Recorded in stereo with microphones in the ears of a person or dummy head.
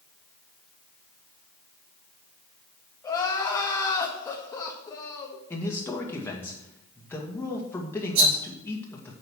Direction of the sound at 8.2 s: 75° right (ahead or behind).